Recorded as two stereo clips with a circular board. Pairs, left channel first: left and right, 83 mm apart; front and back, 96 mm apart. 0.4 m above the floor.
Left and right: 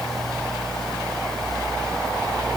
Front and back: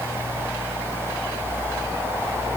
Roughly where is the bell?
No bell in this recording.